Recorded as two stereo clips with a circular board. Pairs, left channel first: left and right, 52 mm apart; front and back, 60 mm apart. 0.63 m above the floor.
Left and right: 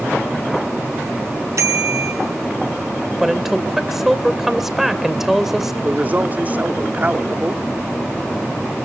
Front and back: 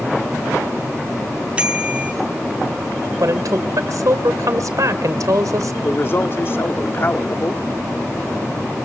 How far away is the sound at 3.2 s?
About 2.5 m.